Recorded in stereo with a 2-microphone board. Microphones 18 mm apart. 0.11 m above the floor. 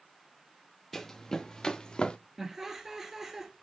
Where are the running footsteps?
15° left (ahead or behind), 1.4 m; by 2.2 s 55° left (ahead or behind), 1.2 m.